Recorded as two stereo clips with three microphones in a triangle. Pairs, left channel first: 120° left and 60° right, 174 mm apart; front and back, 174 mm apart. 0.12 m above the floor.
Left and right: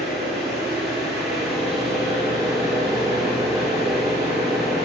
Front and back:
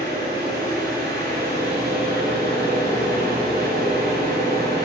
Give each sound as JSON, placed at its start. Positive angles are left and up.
{"t": 0.0, "sound": "an engine running", "azimuth_deg": -150, "distance_m": 3.0}